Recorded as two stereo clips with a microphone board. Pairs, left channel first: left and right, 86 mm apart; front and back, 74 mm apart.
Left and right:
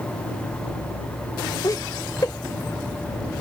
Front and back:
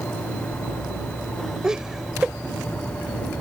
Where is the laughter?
105° left.